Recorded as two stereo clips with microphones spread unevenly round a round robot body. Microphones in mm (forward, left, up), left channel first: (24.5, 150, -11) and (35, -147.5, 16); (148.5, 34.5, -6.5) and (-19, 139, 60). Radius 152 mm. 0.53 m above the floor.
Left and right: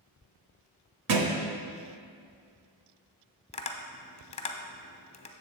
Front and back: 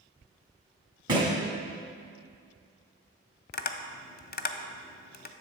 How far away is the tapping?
About 0.6 m.